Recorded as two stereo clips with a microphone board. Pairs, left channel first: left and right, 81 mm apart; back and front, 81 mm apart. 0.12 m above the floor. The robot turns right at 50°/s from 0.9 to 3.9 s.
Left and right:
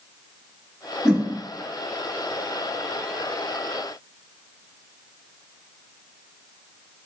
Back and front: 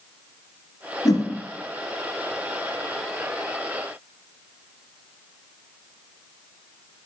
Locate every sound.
1.1 s a whoosh: 170° right, 0.8 m; by 1.2 s 160° right, 0.8 m